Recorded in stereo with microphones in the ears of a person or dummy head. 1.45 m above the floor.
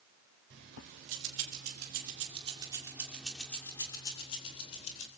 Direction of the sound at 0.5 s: 65° right (ahead or behind).